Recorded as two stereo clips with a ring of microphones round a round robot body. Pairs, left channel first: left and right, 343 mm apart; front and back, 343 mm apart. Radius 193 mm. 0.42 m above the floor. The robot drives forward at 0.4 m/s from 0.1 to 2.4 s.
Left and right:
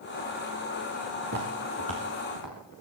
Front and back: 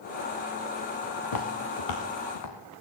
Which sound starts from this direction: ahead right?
Footsteps, at 1.2 s.